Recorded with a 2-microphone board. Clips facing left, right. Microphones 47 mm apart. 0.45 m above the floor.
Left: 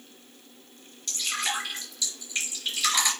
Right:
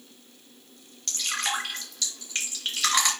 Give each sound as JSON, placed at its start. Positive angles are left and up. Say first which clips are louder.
{"t": 1.1, "sound": "dripping", "louder": "right 1 dB", "side_deg": -55, "distance_m": 3.5}